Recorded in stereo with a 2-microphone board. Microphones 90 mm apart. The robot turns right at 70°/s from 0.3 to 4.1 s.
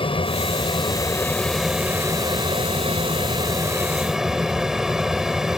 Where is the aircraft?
90° left; by 5.6 s 5° right.